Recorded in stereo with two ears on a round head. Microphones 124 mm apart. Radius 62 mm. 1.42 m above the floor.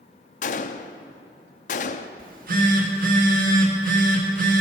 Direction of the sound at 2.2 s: 75° right (ahead or behind).